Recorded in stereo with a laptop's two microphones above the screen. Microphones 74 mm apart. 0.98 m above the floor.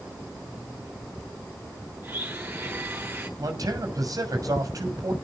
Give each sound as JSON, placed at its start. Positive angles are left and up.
{"t": 2.0, "sound": "a blender", "side_deg": -30, "distance_m": 8.0}
{"t": 3.4, "sound": "a man speaking", "side_deg": -55, "distance_m": 6.5}